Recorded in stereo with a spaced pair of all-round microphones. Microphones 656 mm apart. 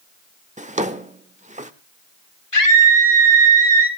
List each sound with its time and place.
0.6 s a drawer: 10° right (ahead or behind), 0.9 m
2.5 s a scream: 50° left (ahead or behind), 4 m